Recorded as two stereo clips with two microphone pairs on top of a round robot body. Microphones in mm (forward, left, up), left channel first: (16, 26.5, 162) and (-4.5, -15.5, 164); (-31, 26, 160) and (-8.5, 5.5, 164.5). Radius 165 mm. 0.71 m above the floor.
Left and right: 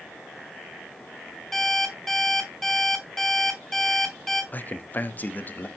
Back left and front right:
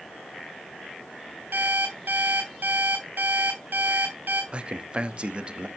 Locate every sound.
1.5 s an alarm clock: 20° right, 3 m
4.5 s a man speaking: 15° left, 1.1 m